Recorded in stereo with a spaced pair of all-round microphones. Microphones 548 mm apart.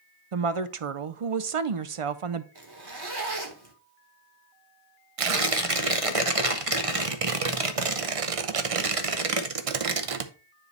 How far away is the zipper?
About 1.3 m.